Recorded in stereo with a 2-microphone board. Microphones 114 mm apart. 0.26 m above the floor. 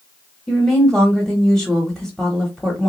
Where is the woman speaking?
5° left (ahead or behind), 1.0 m.